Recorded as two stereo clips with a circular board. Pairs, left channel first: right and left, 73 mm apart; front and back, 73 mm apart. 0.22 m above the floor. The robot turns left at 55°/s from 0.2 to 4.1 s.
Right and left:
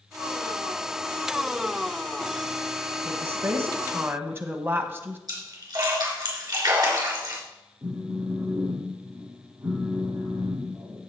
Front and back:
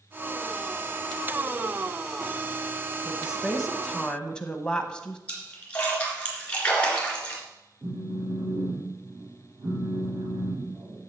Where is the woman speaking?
125° left, 1.1 m; by 5.2 s 65° left, 1.1 m.